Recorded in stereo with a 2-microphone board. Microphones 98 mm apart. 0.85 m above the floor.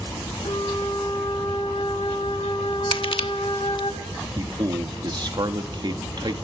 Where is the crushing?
65° left (ahead or behind), 1.1 m.